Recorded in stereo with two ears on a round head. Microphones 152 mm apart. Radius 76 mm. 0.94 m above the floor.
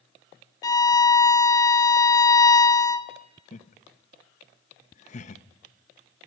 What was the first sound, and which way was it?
A violin, 20° left (ahead or behind).